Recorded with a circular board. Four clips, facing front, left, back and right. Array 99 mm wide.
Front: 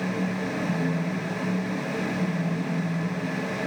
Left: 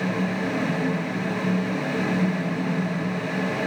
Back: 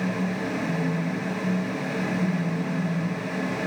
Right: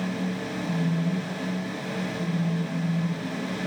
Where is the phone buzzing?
145° left, 5 m.